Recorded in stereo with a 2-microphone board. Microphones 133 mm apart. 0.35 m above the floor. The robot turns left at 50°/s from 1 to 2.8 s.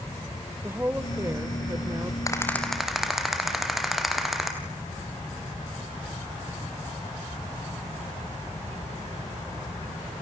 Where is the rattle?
25° left (ahead or behind), 2.5 m; by 4.5 s centre (ahead or behind), 2.5 m.